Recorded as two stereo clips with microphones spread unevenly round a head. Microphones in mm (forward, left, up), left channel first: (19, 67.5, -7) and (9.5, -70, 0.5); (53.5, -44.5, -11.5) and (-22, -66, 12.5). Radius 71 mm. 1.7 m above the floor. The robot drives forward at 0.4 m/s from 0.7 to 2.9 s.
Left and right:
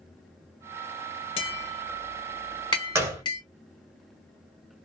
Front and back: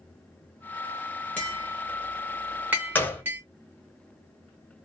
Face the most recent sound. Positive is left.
turn(degrees=-65)